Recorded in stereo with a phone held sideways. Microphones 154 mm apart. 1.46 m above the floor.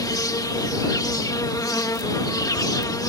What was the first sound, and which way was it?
An insect, 25° left (ahead or behind).